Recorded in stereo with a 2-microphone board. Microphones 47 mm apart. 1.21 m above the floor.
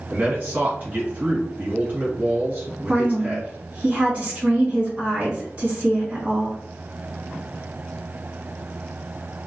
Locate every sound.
0.1 s a man speaking: 35° right (ahead or behind), 1.5 m
2.9 s a woman speaking: 30° right (ahead or behind), 1.7 m